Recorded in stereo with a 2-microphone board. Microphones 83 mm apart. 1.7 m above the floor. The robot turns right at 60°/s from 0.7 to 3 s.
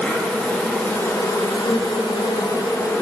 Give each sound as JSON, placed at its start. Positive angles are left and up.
{"t": 0.0, "sound": "an insect", "azimuth_deg": 10, "distance_m": 1.4}